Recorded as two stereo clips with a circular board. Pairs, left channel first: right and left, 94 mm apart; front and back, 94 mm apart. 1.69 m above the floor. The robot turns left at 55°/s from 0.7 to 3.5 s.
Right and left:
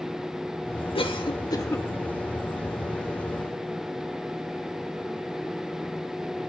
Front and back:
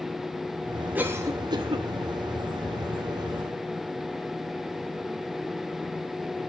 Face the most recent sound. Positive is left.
turn(degrees=115)